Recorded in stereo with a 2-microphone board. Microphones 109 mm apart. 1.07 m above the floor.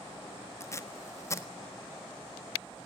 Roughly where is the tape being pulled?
Left.